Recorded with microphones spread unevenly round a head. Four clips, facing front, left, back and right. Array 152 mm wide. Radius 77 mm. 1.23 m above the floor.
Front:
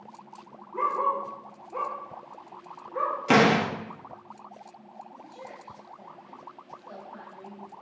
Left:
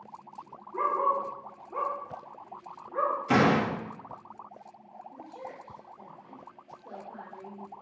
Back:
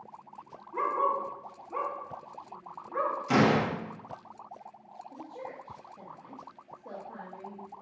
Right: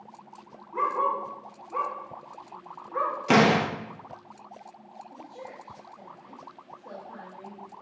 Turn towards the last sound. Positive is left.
turn(degrees=-145)